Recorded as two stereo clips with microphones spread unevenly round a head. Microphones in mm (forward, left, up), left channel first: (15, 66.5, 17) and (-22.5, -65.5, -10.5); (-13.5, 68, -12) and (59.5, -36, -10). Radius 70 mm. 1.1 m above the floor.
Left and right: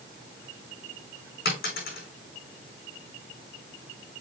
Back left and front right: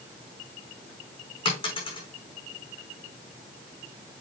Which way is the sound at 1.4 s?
75° left.